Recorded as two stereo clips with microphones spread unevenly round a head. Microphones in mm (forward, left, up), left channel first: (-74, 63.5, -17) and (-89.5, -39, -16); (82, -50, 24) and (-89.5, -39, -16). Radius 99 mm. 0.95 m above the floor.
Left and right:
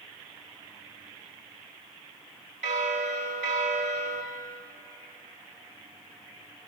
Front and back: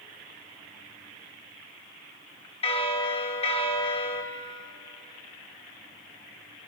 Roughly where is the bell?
Ahead right.